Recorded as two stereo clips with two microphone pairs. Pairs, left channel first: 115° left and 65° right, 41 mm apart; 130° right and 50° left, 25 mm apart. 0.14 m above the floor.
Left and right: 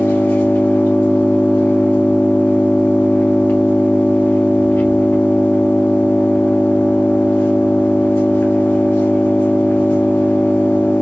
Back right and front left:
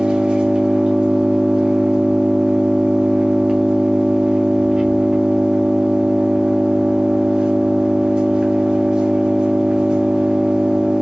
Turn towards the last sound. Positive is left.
turn(degrees=100)